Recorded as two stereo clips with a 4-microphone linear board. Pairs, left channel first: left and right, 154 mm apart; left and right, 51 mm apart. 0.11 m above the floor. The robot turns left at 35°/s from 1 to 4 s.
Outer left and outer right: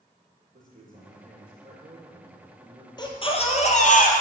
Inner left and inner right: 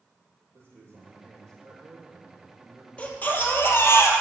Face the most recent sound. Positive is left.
turn(degrees=110)